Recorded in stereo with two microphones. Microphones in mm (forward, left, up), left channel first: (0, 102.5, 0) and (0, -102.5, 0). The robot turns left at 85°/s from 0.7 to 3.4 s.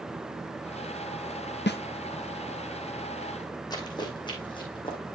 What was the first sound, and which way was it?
A snare drum, 60° left (ahead or behind).